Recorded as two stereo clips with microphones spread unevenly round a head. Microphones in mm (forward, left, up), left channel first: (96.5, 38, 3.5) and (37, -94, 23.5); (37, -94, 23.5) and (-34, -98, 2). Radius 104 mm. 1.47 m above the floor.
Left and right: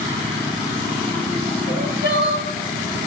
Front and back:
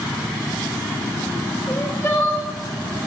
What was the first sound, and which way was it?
Crying, 60° left.